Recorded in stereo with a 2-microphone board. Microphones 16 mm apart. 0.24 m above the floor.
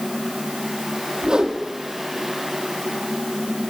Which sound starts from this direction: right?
A whoosh, at 1.2 s.